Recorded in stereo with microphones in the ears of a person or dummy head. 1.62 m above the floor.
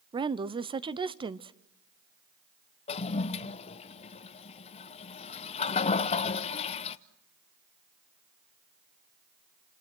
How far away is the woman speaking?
About 0.7 m.